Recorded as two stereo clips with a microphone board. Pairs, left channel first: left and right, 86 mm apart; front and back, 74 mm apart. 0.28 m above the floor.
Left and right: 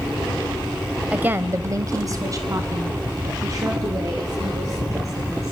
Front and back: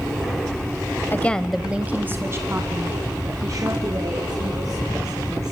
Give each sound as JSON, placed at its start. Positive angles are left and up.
{"t": 1.1, "sound": "a woman speaking", "azimuth_deg": -30, "distance_m": 1.0}